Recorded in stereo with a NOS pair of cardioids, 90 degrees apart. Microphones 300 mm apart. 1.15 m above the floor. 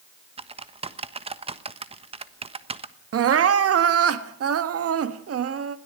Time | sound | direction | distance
0.4 | typing on a keyboard | 20° right | 1.2 m
3.1 | crying | 50° right | 1.6 m